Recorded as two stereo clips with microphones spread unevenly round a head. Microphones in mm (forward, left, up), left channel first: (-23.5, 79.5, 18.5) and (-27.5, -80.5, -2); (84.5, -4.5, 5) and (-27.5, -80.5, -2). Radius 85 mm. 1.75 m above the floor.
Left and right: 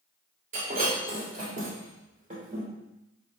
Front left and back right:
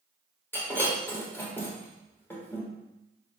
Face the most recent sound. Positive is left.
turn(degrees=-40)